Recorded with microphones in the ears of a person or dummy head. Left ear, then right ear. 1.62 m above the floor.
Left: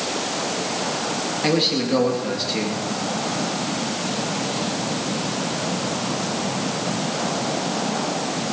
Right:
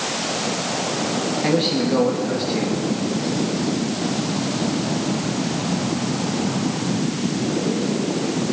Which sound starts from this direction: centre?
A man speaking, at 1.4 s.